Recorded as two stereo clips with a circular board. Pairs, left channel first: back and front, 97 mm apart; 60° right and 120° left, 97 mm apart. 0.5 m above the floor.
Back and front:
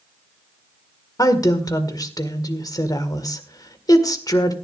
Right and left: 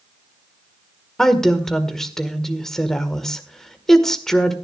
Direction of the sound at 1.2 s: 145° right.